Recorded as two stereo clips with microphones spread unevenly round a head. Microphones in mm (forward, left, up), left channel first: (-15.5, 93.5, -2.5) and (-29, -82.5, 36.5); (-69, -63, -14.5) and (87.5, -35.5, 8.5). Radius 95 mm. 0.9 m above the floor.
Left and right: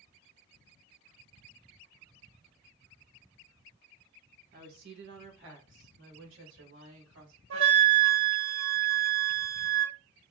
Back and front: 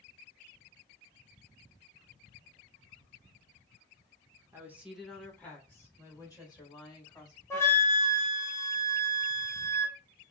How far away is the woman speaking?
About 0.7 m.